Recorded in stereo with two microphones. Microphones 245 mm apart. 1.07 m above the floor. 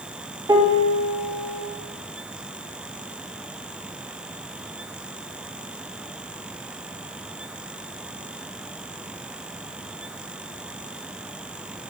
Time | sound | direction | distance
0.5 | a piano | 15° right (ahead or behind) | 2.5 m